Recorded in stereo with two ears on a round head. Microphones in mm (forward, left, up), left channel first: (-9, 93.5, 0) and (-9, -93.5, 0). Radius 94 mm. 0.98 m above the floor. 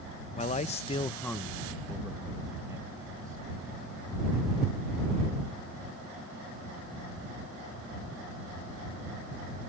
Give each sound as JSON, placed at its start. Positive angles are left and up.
{"t": 0.4, "sound": "a man speaking", "side_deg": 30}